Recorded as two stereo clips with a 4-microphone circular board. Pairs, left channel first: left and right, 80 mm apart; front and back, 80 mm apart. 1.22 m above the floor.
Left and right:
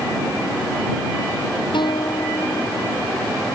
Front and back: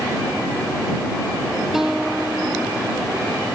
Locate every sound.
1.7 s a guitar: 95° left